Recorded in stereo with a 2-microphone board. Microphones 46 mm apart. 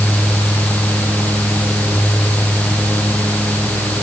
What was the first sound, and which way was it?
Only background noise.